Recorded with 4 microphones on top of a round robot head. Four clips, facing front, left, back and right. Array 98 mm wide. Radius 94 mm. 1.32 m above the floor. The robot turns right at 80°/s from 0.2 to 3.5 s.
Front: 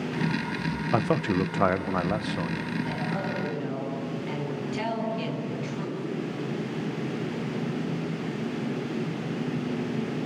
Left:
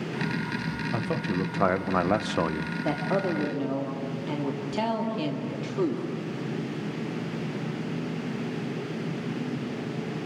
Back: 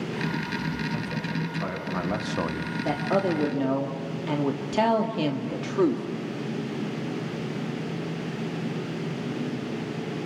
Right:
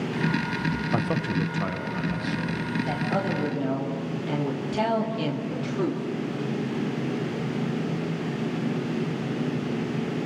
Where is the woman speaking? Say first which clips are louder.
Left 3 dB, back 6 dB; 125° left, 2.5 m; by 6.0 s 175° left, 2.5 m.